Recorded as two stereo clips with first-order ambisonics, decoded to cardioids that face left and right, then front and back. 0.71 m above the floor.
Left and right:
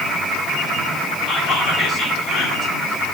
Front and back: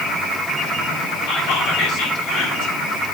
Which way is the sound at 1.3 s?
25° left.